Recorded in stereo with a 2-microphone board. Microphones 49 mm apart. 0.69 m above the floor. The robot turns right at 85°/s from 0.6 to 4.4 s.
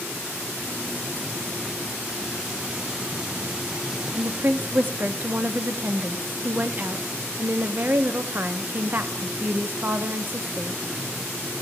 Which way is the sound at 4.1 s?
30° right (ahead or behind).